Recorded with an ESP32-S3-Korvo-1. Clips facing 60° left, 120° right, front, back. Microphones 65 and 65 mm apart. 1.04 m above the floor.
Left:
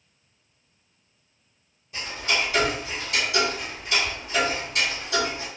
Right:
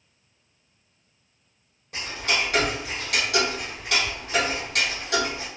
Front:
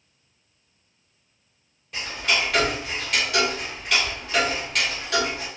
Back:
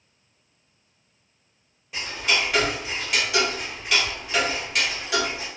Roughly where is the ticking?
Right.